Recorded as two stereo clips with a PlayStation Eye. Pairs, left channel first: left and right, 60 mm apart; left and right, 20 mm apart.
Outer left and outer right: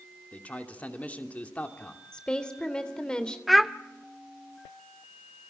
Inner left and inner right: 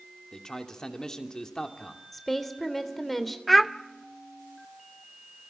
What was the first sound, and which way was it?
A man speaking, 25° left (ahead or behind).